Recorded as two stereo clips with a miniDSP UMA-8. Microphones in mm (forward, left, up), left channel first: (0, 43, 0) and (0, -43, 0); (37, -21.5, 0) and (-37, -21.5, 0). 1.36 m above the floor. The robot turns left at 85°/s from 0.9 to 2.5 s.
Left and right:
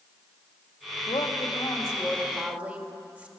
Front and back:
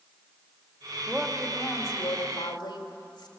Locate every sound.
1.1 s a woman speaking: 105° left, 2.5 m; by 3.3 s 15° right, 2.5 m